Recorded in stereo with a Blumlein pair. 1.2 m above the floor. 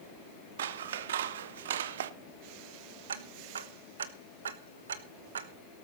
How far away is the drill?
I don't hear a drill.